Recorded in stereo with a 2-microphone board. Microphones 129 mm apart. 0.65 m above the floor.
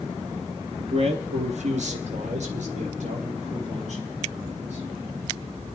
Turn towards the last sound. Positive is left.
turn(degrees=-65)  # may be behind; listen again after turning